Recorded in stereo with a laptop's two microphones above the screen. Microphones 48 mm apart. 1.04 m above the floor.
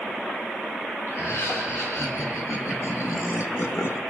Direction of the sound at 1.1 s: 65° left (ahead or behind).